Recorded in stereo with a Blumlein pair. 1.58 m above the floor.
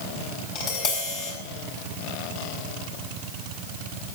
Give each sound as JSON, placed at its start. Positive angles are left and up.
{"t": 0.6, "sound": "tapping", "azimuth_deg": 40, "distance_m": 5.5}